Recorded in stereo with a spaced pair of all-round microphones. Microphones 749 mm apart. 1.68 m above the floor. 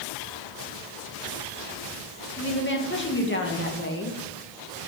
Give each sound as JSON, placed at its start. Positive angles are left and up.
{"t": 2.4, "sound": "a woman speaking", "side_deg": 15, "distance_m": 2.0}